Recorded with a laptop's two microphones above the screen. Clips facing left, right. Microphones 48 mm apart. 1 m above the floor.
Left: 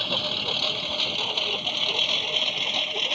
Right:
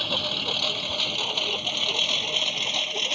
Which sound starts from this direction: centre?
A lawn mower, at 0.0 s.